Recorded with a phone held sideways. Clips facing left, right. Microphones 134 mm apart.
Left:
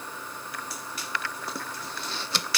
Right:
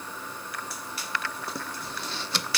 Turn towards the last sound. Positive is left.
No sound to turn to.